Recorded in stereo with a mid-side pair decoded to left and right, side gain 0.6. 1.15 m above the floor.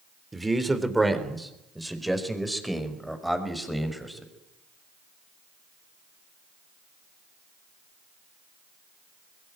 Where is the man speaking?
15° right, 3 m; by 4.3 s straight ahead, 5.5 m.